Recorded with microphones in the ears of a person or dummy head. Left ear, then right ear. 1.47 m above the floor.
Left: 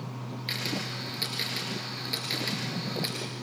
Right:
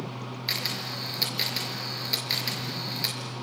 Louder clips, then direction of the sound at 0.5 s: Right 2 dB; 20° right (ahead or behind).